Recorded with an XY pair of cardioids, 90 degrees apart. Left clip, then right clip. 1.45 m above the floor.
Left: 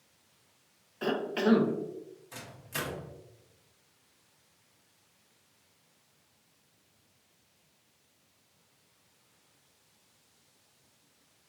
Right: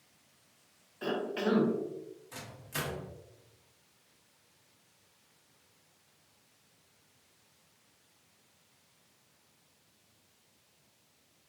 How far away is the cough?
About 0.5 m.